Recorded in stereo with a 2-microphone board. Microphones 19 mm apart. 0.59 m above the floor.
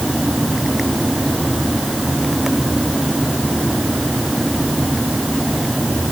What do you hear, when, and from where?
Only background noise.